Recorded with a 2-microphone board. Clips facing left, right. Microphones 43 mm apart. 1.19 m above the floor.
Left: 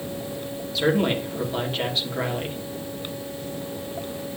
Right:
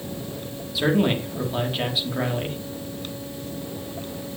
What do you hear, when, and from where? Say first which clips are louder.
0.8 s a man speaking: right 1 dB; 5° right (ahead or behind), 3 m